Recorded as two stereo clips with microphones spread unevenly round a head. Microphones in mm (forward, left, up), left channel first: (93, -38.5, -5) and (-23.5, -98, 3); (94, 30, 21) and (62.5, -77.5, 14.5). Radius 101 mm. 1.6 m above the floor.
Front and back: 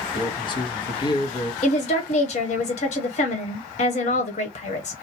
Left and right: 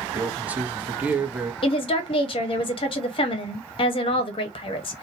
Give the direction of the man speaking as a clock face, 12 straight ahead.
1 o'clock.